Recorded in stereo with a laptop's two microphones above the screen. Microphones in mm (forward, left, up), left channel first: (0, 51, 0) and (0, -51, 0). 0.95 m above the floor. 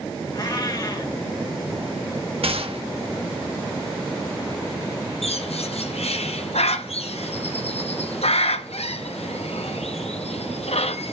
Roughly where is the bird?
Left.